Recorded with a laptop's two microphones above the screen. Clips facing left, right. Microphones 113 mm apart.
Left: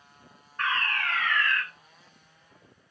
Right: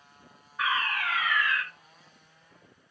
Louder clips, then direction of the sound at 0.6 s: Even; 5° right (ahead or behind).